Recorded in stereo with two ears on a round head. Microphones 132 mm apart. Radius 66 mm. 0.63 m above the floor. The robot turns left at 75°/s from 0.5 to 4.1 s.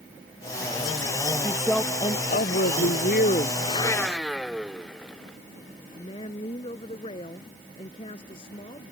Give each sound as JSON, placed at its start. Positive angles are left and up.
{"t": 1.4, "sound": "a woman speaking", "azimuth_deg": -165}
{"t": 3.6, "sound": "a blender", "azimuth_deg": 40}
{"t": 6.0, "sound": "a woman speaking", "side_deg": 35}